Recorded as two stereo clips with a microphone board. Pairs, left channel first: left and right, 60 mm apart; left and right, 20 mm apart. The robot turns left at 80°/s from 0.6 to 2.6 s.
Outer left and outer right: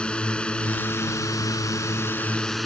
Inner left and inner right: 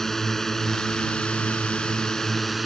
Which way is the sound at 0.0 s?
160° left.